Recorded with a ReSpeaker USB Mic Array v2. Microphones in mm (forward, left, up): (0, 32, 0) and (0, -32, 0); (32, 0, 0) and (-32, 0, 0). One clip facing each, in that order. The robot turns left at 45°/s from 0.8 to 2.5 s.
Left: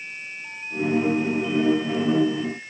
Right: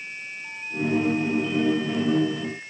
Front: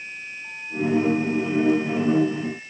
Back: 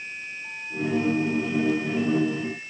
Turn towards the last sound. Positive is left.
No sound to turn to.